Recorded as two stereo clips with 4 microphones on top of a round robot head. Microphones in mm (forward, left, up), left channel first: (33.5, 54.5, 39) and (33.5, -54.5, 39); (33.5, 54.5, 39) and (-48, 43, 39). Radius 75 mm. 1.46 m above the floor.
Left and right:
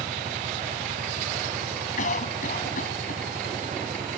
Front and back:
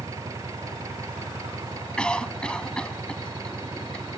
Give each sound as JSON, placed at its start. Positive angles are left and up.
{"t": 0.0, "sound": "an engine running", "azimuth_deg": -105}
{"t": 2.0, "sound": "a cough", "azimuth_deg": 90}